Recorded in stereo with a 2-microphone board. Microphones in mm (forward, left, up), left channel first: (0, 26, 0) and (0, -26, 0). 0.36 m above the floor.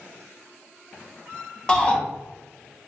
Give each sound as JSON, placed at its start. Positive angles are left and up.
{"t": 1.7, "sound": "a shout", "side_deg": 20, "distance_m": 0.8}